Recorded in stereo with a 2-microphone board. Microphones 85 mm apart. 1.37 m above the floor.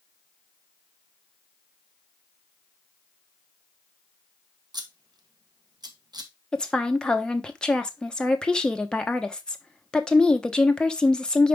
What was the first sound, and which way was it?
Scissors, 55° right (ahead or behind).